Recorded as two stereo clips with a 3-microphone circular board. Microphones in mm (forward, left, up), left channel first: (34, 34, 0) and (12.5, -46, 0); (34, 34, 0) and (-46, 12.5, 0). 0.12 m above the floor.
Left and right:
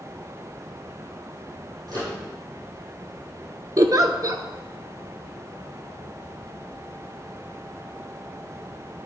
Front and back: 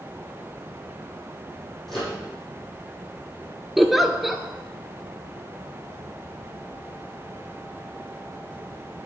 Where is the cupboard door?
I don't hear a cupboard door.